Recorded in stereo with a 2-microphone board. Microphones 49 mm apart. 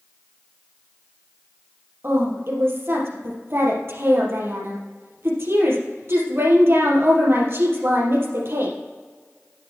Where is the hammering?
I don't hear hammering.